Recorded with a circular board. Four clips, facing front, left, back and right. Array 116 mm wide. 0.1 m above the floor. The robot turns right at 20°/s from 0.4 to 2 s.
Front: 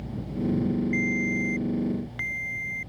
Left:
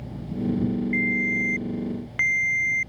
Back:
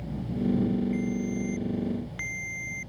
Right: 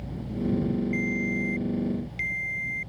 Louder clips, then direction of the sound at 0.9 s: Left 2 dB, front 2 dB; 65° left.